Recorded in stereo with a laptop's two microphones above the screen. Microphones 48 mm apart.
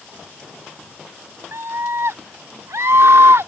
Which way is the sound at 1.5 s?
65° right (ahead or behind).